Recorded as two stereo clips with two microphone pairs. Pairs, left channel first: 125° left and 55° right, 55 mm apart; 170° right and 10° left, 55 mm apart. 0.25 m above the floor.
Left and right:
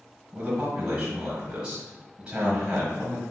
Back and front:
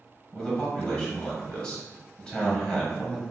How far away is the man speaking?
About 1.2 m.